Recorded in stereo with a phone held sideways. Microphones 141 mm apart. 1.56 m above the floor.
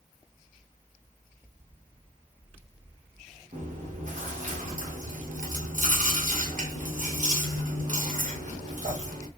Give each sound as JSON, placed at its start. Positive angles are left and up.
{"t": 3.5, "sound": "chewing", "side_deg": -65, "distance_m": 1.1}